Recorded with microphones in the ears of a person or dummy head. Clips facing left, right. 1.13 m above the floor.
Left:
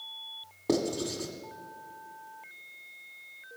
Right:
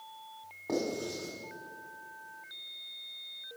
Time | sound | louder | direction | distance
0.7 | writing | left 4 dB | 50° left (ahead or behind) | 1.4 m